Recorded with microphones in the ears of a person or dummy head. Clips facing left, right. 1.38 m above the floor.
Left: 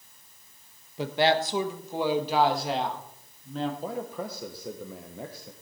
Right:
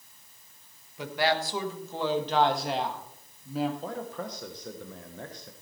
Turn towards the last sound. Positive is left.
turn(degrees=15)  # may be behind; listen again after turning